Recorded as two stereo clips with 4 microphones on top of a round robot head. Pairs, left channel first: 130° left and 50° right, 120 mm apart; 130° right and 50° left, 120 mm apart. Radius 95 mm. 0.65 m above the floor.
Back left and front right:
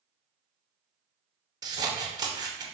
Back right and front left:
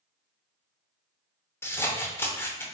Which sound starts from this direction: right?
Scissors, at 1.6 s.